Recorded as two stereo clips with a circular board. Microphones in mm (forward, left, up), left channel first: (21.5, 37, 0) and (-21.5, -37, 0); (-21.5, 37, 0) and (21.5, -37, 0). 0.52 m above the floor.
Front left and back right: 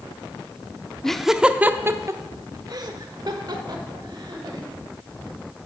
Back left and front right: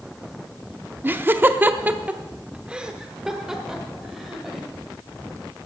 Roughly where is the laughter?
Ahead.